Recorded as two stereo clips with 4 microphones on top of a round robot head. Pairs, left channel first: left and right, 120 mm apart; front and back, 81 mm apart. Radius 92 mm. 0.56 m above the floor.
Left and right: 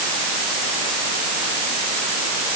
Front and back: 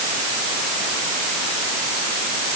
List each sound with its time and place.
Only background noise.